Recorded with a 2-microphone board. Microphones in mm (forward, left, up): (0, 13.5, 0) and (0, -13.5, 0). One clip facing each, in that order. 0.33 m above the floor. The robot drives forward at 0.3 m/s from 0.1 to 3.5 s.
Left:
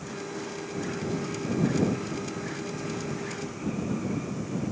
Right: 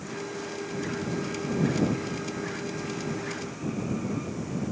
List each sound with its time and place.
Only background noise.